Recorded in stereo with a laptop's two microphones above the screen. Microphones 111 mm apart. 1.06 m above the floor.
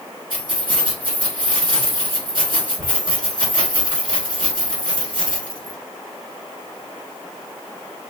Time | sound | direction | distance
0.3 | keys jangling | 50° right (ahead or behind) | 1.6 m